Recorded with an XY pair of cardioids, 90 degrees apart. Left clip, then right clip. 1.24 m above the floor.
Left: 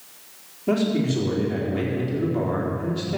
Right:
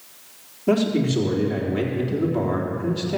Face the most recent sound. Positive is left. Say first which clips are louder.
# right 2 dB
turn(degrees=-20)